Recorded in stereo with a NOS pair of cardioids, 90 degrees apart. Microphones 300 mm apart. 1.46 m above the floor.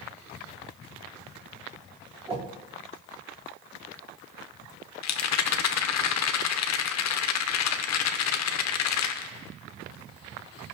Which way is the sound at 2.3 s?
20° right.